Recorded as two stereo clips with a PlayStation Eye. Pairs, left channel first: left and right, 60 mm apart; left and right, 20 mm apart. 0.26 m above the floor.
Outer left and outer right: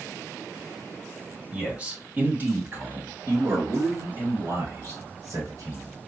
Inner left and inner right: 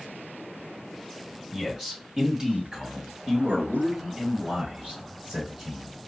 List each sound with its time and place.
1.5 s a man speaking: 15° right (ahead or behind), 1.4 m; by 6.0 s 65° right (ahead or behind), 3.5 m